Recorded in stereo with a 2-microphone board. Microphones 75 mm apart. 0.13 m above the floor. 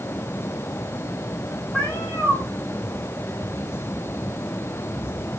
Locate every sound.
1.7 s a cat meowing: 15° left (ahead or behind), 3 m